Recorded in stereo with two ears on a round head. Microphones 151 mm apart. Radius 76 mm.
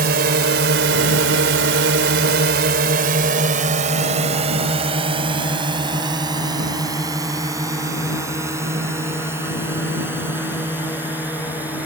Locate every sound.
0.0 s a drone: 60° right (ahead or behind); by 11.9 s 10° right (ahead or behind)